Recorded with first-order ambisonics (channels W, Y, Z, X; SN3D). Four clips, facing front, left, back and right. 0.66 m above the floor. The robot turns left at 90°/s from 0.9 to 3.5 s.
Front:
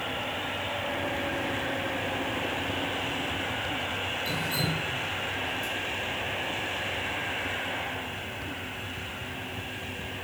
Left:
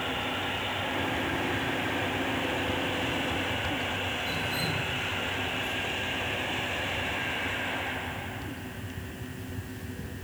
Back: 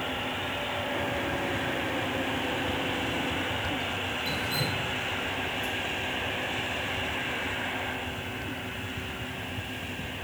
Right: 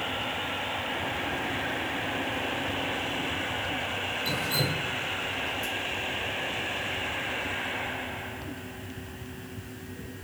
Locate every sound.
4.2 s dripping: 75° right, 2 m